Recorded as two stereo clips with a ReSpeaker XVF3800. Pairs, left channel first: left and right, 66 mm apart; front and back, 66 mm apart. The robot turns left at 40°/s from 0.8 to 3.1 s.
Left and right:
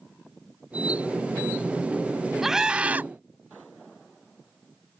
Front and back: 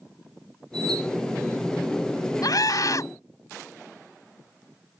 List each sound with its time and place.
2.4 s a scream: 5° right; by 3.1 s 30° right